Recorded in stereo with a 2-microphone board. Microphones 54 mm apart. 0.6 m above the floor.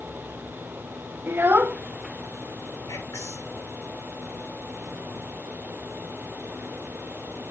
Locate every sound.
1.3 s a child speaking: 45° right (ahead or behind), 0.6 m; by 2.8 s 5° right (ahead or behind), 1.6 m
2.9 s whispering: 75° left (ahead or behind), 8.5 m